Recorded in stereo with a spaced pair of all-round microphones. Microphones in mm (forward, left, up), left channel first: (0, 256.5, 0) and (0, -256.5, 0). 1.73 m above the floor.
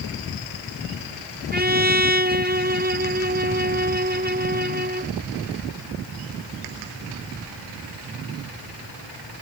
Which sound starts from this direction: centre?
A trumpet, at 1.5 s.